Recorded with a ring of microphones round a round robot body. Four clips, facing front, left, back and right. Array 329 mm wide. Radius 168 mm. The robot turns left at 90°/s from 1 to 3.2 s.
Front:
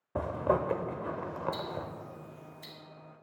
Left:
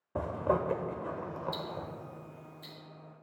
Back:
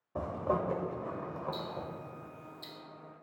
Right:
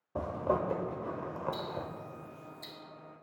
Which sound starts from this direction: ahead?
Ticking, at 1.5 s.